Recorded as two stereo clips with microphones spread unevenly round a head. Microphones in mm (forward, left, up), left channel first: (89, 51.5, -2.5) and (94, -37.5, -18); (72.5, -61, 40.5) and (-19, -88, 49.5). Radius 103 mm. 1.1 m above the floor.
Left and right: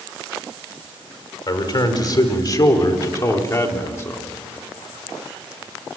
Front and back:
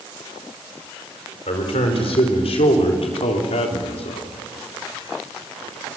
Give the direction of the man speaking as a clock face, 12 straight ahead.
10 o'clock.